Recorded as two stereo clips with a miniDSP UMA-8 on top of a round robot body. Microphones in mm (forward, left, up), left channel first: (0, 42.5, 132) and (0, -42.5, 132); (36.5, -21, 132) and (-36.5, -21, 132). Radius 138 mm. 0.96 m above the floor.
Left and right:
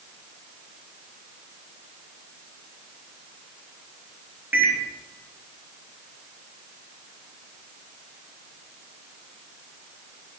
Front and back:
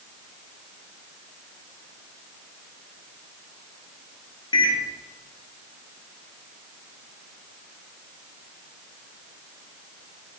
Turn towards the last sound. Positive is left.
turn(degrees=-15)